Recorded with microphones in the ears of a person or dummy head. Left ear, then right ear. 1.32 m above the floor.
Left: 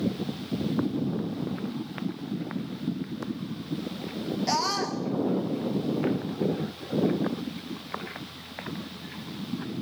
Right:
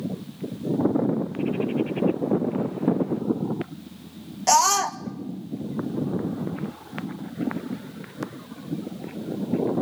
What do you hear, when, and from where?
4.5 s a scream: 40° right (ahead or behind), 1.1 m